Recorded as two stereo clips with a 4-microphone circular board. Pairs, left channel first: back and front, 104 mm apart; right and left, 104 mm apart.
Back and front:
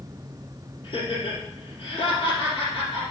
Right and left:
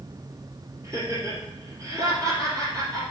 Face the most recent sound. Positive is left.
turn(degrees=150)